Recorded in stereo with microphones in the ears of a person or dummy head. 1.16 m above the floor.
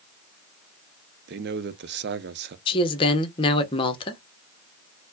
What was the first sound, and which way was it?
A man speaking, 50° right (ahead or behind).